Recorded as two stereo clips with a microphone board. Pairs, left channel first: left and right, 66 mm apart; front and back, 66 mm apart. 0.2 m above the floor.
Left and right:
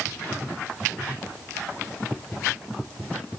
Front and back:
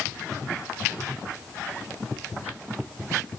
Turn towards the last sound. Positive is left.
No sound to turn to.